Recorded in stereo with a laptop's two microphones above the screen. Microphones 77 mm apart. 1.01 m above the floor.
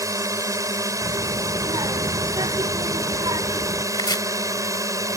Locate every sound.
0.0 s a drone: 45° right (ahead or behind)
1.0 s a child speaking: 75° right (ahead or behind)
3.9 s chopping: 70° left (ahead or behind)